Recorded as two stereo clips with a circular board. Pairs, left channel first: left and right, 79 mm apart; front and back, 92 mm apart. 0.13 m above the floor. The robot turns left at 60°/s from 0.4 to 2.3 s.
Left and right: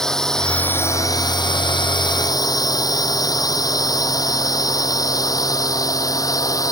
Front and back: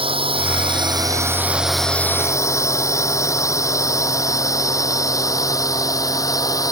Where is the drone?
175° left; by 6.7 s 50° left.